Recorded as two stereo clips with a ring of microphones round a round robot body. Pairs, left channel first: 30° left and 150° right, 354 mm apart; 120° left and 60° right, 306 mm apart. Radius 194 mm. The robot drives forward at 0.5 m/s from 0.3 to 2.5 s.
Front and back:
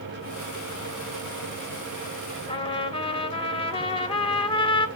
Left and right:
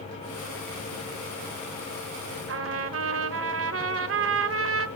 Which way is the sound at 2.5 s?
40° right.